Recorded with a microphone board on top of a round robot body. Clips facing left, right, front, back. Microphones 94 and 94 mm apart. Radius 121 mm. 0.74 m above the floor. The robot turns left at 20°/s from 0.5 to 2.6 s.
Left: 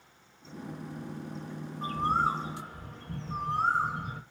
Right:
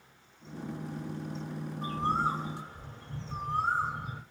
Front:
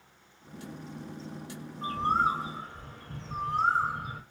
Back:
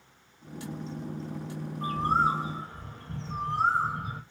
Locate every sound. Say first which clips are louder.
1.8 s a bird: left 2 dB, back 1 dB; 135° left, 0.6 m; by 4.2 s 120° left, 0.6 m